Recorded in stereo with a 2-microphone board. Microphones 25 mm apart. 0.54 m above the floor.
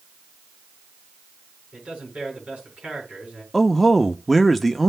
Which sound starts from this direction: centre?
A man speaking, at 3.5 s.